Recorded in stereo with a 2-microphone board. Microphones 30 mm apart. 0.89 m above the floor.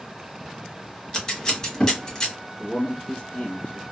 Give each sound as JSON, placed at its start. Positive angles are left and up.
{"t": 1.1, "sound": "scissors", "side_deg": 25, "distance_m": 0.9}
{"t": 2.6, "sound": "a man speaking", "side_deg": 35, "distance_m": 1.2}